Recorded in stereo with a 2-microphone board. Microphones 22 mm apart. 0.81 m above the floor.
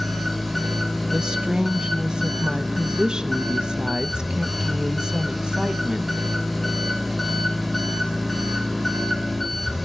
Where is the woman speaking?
35° right (ahead or behind), 0.6 m.